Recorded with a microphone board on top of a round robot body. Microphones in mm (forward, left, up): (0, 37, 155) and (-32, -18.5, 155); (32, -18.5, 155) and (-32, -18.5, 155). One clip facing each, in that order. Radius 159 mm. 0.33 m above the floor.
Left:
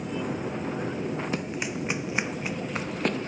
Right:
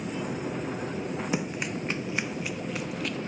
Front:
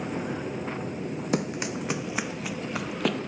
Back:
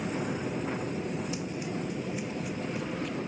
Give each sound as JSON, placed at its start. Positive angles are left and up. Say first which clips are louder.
{"t": 1.3, "sound": "running footsteps", "louder": "even, front 5 dB", "azimuth_deg": -40}